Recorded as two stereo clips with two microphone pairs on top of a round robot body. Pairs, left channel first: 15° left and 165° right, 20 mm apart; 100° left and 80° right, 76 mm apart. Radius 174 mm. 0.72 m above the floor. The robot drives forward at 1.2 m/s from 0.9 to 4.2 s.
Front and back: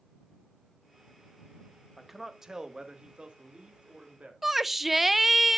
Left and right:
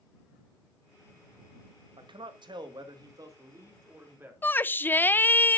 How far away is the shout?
About 0.7 m.